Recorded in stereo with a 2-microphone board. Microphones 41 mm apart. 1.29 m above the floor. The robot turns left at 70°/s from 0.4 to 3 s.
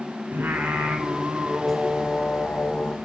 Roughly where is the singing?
Right.